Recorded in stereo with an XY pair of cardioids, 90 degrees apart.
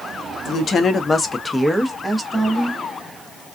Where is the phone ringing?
No phone ringing in this recording.